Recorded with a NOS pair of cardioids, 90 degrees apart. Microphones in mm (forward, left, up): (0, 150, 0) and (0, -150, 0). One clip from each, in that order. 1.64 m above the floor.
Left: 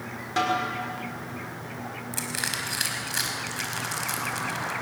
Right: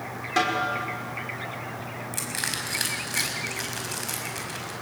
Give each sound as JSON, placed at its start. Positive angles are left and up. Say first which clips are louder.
{"t": 0.4, "sound": "a snare drum", "louder": "right 1 dB", "azimuth_deg": -20, "distance_m": 6.0}
{"t": 2.1, "sound": "crushing", "louder": "even", "azimuth_deg": 10, "distance_m": 5.5}